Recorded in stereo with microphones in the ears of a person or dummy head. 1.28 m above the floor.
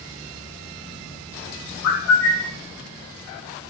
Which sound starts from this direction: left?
A bird, at 1.8 s.